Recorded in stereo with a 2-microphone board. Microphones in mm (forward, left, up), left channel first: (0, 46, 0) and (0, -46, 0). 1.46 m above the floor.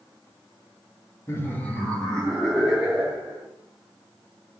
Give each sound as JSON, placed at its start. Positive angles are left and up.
{"t": 1.3, "sound": "laughter", "side_deg": 30, "distance_m": 1.3}